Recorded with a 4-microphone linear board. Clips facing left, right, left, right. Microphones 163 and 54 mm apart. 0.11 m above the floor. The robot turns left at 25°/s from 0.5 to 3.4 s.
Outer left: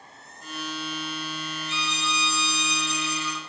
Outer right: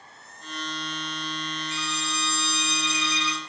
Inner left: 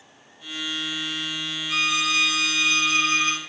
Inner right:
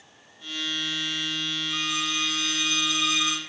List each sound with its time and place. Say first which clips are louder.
1.7 s a violin: outer left 1 dB, inner left 9 dB; 95° left, 1.7 m; by 3.4 s 50° left, 1.7 m